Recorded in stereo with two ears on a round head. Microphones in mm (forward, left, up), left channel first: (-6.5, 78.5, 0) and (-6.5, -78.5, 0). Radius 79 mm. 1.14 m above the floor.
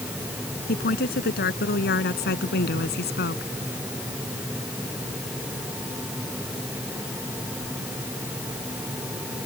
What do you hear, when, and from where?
0.7 s a woman speaking: 60° left (ahead or behind); by 3.5 s 65° left (ahead or behind)